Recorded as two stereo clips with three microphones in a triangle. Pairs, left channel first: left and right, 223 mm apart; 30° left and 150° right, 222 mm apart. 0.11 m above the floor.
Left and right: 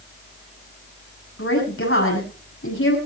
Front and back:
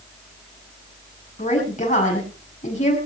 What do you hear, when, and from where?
1.4 s a woman speaking: 85° left, 6.5 m